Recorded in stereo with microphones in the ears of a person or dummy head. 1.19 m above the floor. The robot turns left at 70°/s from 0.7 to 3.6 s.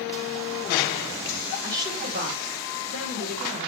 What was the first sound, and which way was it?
A woman speaking, 15° right.